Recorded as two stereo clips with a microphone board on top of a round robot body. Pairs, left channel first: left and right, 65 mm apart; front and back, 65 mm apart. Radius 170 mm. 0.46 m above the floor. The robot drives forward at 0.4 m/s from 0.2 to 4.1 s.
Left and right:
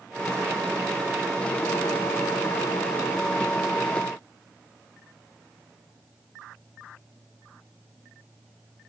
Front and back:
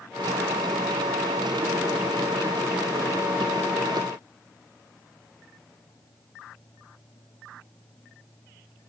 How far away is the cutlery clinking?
No cutlery clinking in this recording.